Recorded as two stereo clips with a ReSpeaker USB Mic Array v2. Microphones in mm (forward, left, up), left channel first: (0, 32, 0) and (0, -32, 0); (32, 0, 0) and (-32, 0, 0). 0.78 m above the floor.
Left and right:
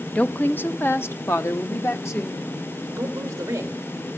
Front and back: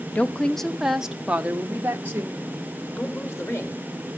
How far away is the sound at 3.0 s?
About 3 m.